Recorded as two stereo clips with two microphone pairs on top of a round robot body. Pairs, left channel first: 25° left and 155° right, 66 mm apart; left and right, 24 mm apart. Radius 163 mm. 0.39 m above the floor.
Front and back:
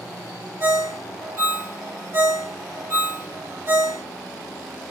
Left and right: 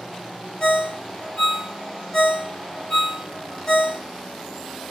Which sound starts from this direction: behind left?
A ringtone, at 0.6 s.